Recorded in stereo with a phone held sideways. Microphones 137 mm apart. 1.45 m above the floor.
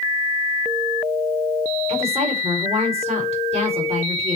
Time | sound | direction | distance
1.9 | a woman speaking | 45° right (ahead or behind) | 5 m